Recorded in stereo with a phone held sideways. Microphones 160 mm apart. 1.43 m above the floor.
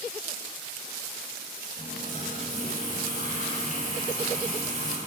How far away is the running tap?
About 4.5 m.